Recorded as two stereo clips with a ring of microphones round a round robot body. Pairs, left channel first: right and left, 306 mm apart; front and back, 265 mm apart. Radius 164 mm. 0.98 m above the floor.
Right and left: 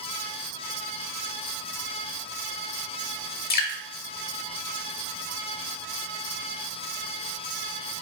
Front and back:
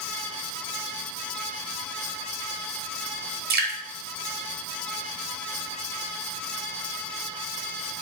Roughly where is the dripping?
Behind right.